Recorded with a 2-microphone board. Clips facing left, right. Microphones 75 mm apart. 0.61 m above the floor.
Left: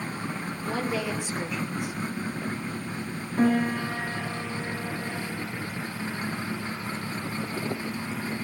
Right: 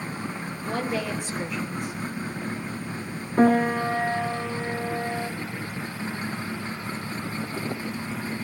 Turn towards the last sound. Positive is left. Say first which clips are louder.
# right 4 dB
turn(degrees=-45)  # may be behind; listen again after turning